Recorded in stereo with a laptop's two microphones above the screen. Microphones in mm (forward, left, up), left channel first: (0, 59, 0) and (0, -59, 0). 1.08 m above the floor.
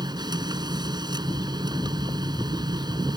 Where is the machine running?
35° right (ahead or behind).